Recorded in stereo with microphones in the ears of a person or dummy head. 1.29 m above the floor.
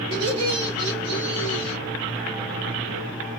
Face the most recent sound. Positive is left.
turn(degrees=-70)  # may be behind; listen again after turning